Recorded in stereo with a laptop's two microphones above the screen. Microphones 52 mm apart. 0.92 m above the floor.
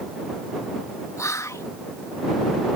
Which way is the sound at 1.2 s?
65° left (ahead or behind).